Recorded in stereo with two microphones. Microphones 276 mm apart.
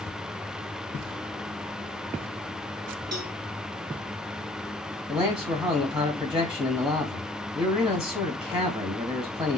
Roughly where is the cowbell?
Right.